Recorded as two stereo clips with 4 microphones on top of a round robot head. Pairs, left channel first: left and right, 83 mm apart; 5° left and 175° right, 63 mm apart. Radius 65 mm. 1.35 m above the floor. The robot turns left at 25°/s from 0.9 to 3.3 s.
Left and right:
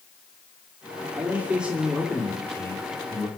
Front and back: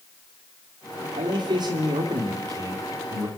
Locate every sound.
1.1 s a man speaking: 160° right, 3 m; by 3.3 s 145° left, 3 m